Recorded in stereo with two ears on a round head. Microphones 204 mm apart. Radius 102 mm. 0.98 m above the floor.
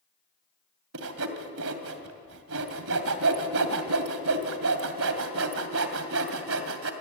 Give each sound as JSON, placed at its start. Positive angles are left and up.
{"t": 0.9, "sound": "sawing", "side_deg": -70, "distance_m": 2.5}